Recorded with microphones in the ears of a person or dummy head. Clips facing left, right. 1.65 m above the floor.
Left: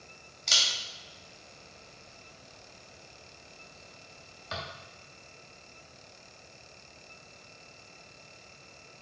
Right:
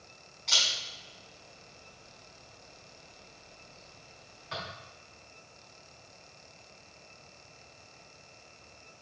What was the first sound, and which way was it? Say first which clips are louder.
A camera shutter: even; 65° left (ahead or behind).